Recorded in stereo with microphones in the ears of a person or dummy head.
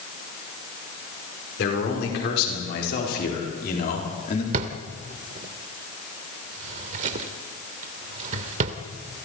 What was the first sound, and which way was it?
A man speaking, 70° left (ahead or behind).